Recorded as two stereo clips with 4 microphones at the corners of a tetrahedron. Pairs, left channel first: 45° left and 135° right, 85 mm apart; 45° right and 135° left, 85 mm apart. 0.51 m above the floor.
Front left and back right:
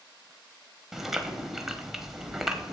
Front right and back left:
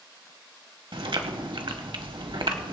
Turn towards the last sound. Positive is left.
turn(degrees=140)